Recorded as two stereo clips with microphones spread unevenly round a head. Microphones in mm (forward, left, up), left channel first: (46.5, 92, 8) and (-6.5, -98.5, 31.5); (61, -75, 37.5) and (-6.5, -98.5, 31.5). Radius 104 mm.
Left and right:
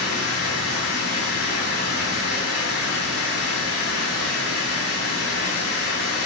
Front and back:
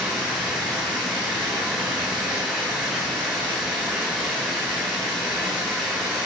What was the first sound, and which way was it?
Running water, 115° left.